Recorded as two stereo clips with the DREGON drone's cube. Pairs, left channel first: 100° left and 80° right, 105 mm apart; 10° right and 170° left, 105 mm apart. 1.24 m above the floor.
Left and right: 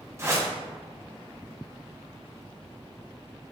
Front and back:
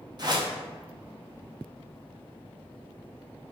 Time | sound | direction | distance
0.2 | a whoosh | 140° right | 0.8 m